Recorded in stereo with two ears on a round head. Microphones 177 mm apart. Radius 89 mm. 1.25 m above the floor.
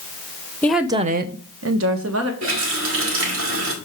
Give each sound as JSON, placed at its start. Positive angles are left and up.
{"t": 0.6, "sound": "a woman speaking", "side_deg": 10, "distance_m": 0.7}
{"t": 2.4, "sound": "a running tap", "side_deg": -75, "distance_m": 2.5}